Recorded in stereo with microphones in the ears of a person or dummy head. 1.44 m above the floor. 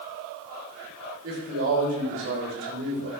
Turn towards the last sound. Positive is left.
turn(degrees=-65)  # may be behind; listen again after turning